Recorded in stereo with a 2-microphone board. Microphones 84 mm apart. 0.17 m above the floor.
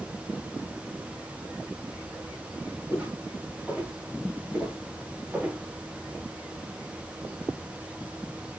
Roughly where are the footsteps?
Centre.